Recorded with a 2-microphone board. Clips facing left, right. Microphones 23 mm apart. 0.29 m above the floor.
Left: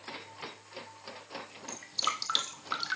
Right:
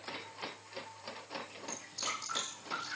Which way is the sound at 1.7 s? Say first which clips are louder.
Left 7 dB; 85° left.